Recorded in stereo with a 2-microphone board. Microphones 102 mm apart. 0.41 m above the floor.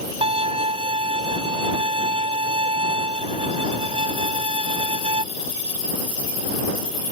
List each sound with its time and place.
0.2 s a violin: 65° right (ahead or behind)